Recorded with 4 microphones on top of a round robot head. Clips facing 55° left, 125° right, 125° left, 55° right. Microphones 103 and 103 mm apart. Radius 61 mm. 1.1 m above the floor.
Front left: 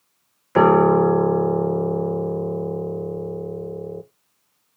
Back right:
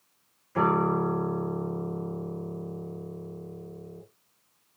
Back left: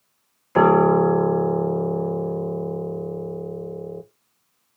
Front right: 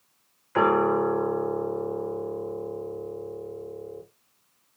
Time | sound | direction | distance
0.6 | a piano | 70° left | 0.7 m